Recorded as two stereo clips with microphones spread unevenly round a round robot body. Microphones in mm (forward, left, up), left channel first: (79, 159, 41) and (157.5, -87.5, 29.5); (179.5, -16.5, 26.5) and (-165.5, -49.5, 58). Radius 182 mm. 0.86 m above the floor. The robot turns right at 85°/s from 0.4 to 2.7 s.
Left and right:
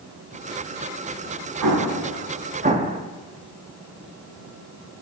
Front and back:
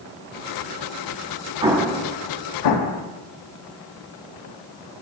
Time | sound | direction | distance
1.6 | an explosion | 100° right | 1.0 m